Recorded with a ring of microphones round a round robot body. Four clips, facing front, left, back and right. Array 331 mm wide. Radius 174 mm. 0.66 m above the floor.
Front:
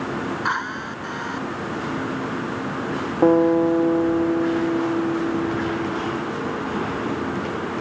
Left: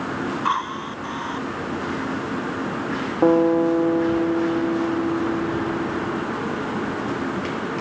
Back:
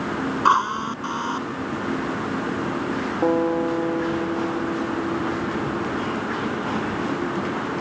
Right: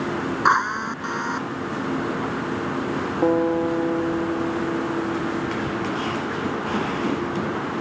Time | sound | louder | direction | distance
0.5 | a drill | right 7 dB, back 7 dB | 140° right | ?
3.2 | a guitar | left 4 dB, front 5 dB | 35° left | ?